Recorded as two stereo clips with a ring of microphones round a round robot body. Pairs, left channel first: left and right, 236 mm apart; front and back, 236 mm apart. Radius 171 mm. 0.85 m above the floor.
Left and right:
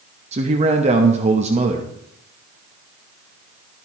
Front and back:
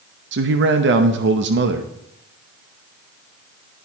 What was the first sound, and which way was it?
A man speaking, 150° right.